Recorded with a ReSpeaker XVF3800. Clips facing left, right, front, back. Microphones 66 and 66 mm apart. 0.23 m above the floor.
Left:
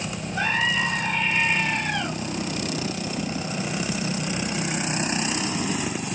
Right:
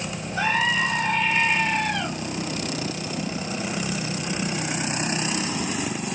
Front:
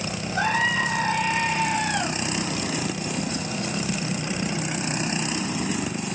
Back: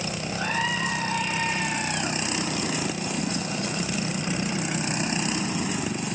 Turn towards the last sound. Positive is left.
turn(degrees=-5)